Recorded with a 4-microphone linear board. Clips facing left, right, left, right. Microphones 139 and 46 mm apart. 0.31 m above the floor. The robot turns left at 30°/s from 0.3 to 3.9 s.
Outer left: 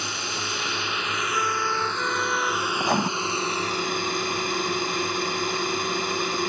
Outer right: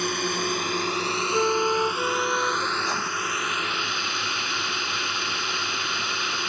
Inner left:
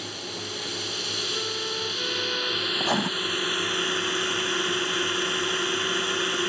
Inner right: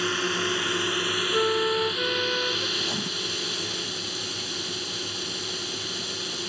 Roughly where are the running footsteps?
I don't hear running footsteps.